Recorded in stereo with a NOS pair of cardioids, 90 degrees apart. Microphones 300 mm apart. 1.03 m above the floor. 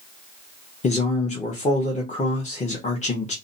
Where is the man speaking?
25° left, 0.9 m.